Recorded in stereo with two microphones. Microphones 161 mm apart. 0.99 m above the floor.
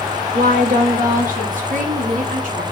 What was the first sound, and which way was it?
A woman speaking, 65° right (ahead or behind).